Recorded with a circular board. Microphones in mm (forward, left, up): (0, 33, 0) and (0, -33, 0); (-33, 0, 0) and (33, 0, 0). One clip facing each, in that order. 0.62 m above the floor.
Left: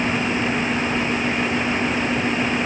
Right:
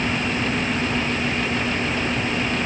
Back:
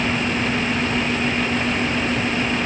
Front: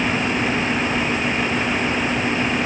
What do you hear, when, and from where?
Only background noise.